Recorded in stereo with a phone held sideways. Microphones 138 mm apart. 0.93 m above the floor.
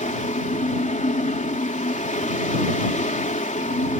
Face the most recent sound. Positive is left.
turn(degrees=65)  # may be behind; listen again after turning